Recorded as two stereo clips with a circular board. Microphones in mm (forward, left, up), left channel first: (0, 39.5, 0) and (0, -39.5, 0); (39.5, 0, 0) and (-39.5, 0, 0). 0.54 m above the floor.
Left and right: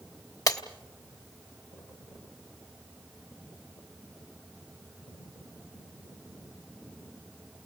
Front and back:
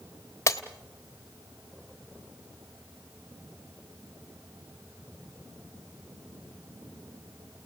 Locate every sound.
0.5 s breaking glass: 50° left, 1.1 m